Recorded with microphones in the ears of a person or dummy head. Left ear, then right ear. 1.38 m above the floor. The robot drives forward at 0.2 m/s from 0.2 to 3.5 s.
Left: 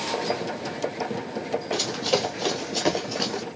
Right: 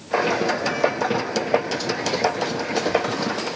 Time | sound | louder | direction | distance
1.7 | running footsteps | right 1 dB | 50° left (ahead or behind) | 2.5 m